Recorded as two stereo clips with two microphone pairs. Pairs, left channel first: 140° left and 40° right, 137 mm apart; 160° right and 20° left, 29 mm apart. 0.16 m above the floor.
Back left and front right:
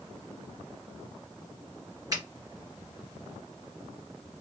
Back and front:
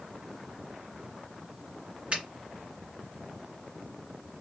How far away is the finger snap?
About 1.9 m.